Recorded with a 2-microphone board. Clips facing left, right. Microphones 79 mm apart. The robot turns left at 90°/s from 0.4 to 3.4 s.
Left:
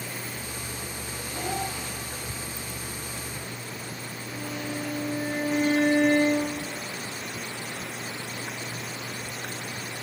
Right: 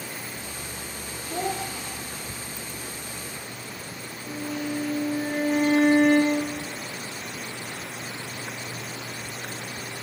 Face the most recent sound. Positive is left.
turn(degrees=-60)  # may be behind; listen again after turning